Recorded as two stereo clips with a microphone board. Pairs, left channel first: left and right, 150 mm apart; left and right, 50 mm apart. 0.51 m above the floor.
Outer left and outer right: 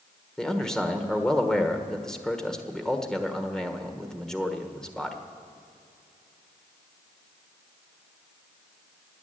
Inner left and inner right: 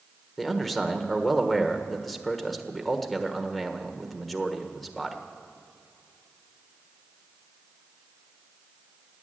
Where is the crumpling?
I don't hear crumpling.